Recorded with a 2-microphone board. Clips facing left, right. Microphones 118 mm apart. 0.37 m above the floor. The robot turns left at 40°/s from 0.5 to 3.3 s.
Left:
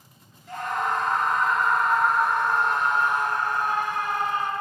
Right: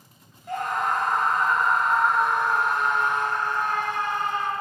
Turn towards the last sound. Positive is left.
turn(degrees=160)